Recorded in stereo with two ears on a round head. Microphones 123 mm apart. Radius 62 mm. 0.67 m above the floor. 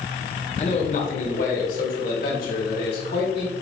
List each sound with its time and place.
0.6 s a man speaking: 45° left (ahead or behind), 1.9 m; by 3.5 s 75° left (ahead or behind), 4 m